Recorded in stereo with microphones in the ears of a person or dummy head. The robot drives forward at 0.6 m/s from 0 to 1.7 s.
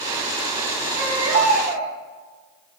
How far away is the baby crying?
About 6 m.